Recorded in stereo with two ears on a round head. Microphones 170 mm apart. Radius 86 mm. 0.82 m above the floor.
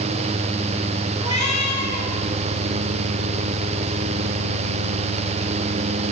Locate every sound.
1.2 s a cat meowing: 25° right (ahead or behind), 7 m